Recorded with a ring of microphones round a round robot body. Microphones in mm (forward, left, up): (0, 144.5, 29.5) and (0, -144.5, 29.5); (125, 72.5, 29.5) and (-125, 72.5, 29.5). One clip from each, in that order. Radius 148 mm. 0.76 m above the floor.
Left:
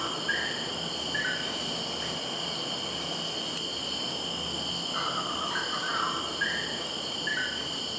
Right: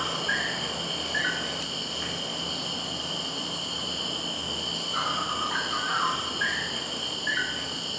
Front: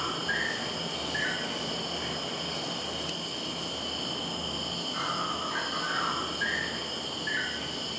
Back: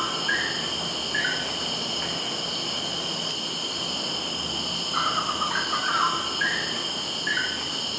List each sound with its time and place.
0.0 s an insect: 175° right, 0.9 m